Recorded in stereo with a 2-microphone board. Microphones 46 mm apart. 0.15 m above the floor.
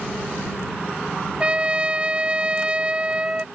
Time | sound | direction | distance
1.4 | a trumpet | 25° right (ahead or behind) | ?